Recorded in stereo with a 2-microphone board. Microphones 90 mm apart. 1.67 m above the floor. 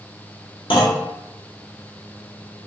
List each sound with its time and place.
0.7 s a clunk: 65° left (ahead or behind), 0.6 m